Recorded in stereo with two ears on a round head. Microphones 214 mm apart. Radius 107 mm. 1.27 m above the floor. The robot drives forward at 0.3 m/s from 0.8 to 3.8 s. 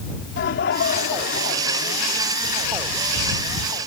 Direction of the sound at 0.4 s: 50° left (ahead or behind).